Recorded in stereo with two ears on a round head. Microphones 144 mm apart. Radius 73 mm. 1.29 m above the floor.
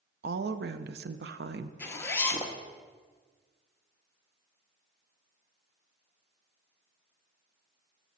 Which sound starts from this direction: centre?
A zipper, at 1.8 s.